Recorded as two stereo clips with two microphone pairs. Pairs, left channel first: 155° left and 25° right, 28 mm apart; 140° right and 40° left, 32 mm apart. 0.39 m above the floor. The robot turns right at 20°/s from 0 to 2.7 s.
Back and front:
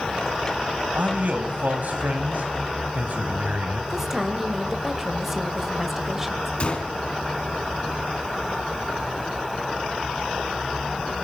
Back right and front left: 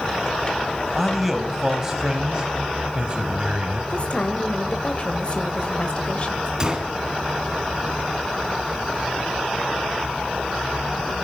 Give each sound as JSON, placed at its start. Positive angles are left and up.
{"t": 0.9, "sound": "a man speaking", "azimuth_deg": -50, "distance_m": 2.5}
{"t": 3.9, "sound": "a woman speaking", "azimuth_deg": -100, "distance_m": 2.0}
{"t": 6.6, "sound": "a gunshot", "azimuth_deg": 110, "distance_m": 2.5}